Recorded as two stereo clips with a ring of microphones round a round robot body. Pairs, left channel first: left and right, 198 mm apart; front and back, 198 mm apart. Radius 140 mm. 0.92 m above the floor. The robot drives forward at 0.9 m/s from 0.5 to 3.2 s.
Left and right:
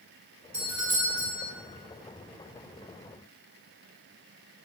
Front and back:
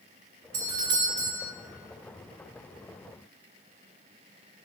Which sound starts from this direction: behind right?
A doorbell, at 0.5 s.